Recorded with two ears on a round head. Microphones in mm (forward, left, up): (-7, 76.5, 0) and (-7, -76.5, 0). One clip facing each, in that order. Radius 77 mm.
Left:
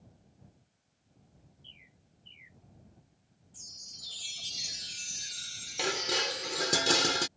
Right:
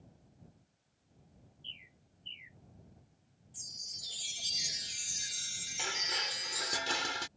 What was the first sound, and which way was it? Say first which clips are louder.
A bird: even; 30° right (ahead or behind).